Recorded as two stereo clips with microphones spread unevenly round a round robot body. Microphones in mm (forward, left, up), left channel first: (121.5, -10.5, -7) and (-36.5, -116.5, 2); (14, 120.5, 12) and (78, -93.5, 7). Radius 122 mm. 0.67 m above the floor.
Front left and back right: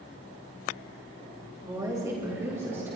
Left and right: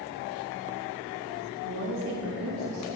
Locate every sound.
1.6 s a woman speaking: 75° right, 2.5 m; by 3.0 s 70° right, 3 m